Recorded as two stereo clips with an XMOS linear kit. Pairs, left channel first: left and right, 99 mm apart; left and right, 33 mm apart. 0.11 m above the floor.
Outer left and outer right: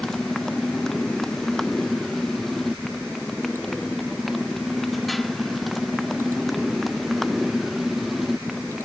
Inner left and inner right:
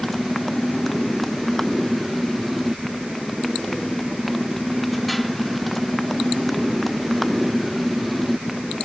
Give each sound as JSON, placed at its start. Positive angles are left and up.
{"t": 0.0, "sound": "a motorcycle", "side_deg": 5}